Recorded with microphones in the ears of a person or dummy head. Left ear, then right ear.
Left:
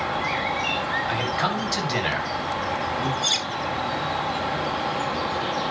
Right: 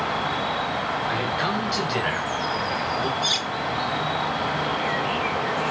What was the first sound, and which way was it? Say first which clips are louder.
An insect: even; 10° right (ahead or behind).